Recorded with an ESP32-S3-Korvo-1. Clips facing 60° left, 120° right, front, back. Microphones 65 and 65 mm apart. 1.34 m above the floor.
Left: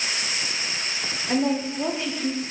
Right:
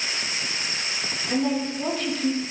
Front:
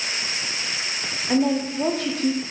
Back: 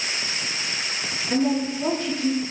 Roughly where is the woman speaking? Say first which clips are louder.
Left 1 dB, front 1 dB; ahead.